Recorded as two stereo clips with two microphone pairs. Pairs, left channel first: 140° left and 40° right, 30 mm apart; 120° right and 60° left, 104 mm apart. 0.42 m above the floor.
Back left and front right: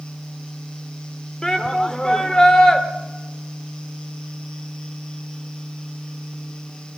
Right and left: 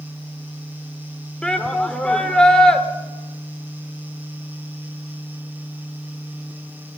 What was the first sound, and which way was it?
A shout, 165° left.